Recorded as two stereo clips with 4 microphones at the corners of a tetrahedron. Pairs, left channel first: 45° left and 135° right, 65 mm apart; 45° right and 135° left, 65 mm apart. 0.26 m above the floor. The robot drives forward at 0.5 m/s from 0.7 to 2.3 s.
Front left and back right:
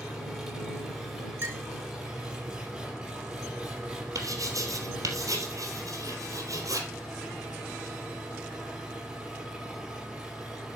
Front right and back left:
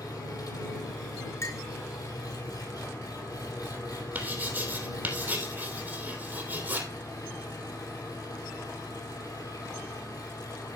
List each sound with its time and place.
0.0 s an engine running: 45° right, 5 m; by 10.8 s 55° right, 4.5 m
1.4 s a clink: 85° right, 3 m
4.2 s writing: 165° right, 3 m